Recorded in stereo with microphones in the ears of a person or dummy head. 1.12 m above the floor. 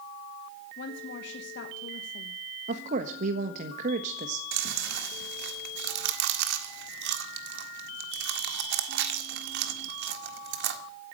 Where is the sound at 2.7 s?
40° right (ahead or behind), 1.4 m.